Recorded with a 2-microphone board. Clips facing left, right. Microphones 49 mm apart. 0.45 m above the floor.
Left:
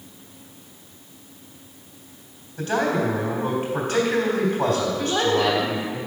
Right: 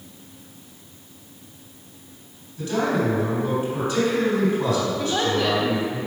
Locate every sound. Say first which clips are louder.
2.6 s a man speaking: even; 60° left (ahead or behind), 3 m
5.0 s a woman speaking: left 2 dB; 10° left (ahead or behind), 1.1 m